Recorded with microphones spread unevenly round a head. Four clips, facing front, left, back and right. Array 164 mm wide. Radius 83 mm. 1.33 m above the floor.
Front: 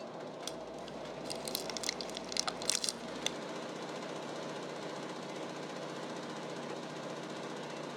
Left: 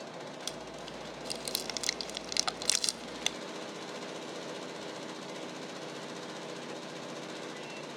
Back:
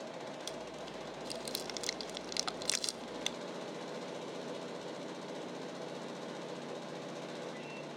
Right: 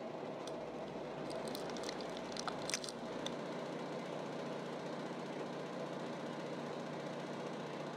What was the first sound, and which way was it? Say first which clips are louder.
Chewing: left 1 dB, even; 90° left.